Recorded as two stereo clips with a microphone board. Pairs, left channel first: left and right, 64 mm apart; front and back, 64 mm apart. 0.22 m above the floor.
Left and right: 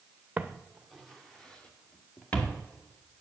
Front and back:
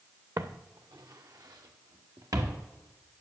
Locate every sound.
0.4 s footsteps: 160° right, 0.9 m; by 2.6 s 155° left, 2.5 m